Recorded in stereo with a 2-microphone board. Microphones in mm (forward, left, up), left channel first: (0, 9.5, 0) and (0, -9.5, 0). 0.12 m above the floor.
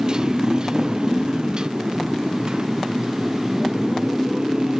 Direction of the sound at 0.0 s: 45° right (ahead or behind).